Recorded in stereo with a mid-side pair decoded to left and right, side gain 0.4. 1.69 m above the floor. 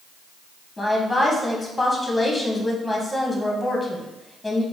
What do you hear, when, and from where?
0.8 s a woman speaking: 15° left, 1.5 m